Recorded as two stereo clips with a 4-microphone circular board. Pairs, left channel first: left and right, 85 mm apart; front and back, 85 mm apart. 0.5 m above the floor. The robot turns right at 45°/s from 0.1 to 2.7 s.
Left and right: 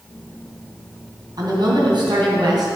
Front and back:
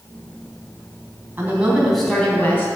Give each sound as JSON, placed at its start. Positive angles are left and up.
{"t": 1.4, "sound": "a woman speaking", "azimuth_deg": -115, "distance_m": 3.5}